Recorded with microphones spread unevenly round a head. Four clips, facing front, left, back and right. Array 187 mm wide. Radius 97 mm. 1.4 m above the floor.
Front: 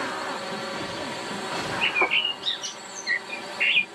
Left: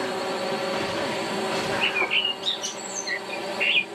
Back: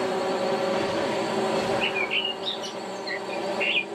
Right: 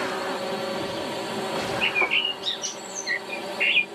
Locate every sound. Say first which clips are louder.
0.0 s a drone: left 1 dB, back 6 dB; 175° left
1.8 s a bird: even, front 1 dB; 5° right